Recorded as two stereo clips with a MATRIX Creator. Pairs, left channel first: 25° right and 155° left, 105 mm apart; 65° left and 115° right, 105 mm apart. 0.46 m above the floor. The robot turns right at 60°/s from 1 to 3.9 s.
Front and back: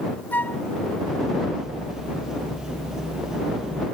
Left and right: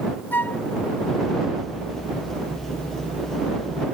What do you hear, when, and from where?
0.3 s a flute: 25° left